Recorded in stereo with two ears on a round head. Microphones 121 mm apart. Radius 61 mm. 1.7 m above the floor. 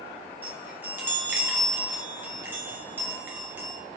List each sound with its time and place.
0.4 s a chime: 15° right (ahead or behind), 0.5 m